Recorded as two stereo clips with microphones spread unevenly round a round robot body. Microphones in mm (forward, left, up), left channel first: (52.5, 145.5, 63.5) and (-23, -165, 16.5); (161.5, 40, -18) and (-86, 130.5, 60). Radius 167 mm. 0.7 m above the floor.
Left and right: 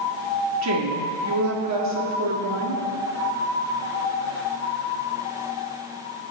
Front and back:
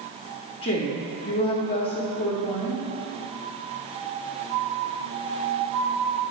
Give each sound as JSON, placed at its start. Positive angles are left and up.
{"t": 0.6, "sound": "a woman speaking", "azimuth_deg": -80, "distance_m": 1.7}